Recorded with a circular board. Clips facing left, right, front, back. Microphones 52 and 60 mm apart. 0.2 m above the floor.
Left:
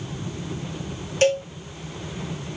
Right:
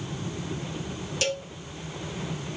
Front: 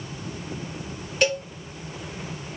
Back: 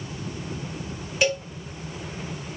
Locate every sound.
1.2 s a cowbell: 95° left, 0.8 m